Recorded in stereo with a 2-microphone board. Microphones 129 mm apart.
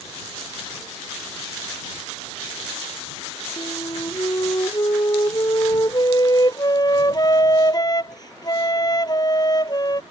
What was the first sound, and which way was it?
A flute, 35° left (ahead or behind).